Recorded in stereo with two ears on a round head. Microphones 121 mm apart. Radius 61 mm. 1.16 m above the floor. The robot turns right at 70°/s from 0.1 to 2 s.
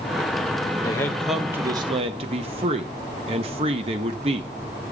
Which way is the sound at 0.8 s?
150° left.